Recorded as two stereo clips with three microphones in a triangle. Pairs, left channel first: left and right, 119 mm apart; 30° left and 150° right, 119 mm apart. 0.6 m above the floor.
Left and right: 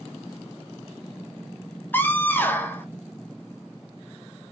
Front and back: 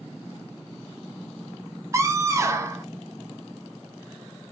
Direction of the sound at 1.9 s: 155° left.